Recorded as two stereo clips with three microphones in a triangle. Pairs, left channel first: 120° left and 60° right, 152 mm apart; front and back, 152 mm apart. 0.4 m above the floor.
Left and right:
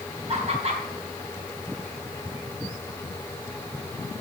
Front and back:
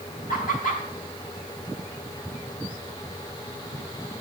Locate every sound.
0.3 s laughter: 15° right, 3 m